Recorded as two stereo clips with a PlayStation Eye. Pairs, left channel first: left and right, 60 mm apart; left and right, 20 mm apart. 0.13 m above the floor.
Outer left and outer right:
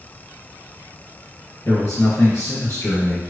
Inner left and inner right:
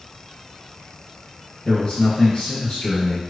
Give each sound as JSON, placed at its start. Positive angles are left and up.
{"t": 1.6, "sound": "a man speaking", "side_deg": 45, "distance_m": 2.0}